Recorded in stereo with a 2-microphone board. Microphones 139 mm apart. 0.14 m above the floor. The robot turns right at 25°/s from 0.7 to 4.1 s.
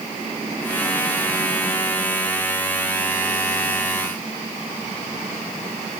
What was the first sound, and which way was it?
Only background noise.